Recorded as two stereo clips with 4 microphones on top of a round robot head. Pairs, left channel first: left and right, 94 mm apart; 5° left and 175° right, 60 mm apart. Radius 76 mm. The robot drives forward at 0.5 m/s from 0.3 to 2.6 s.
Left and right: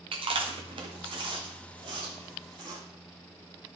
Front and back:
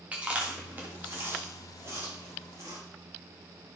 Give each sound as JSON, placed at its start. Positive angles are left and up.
{"t": 0.1, "sound": "chewing", "azimuth_deg": -110, "distance_m": 1.9}